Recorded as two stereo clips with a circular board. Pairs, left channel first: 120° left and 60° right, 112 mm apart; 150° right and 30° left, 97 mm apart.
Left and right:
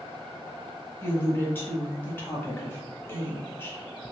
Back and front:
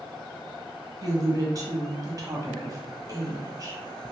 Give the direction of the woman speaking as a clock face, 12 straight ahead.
10 o'clock.